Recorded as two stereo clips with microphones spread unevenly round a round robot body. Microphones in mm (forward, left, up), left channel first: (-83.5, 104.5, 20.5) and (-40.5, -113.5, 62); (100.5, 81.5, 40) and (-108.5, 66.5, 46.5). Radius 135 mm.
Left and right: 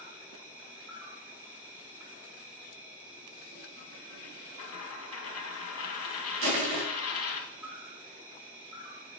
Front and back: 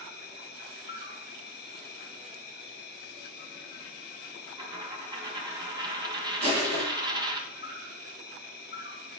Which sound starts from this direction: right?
Crushing, at 6.4 s.